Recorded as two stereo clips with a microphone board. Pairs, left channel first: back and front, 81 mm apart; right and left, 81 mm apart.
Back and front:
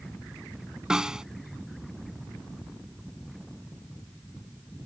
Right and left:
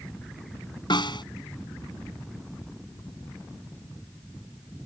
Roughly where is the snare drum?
Right.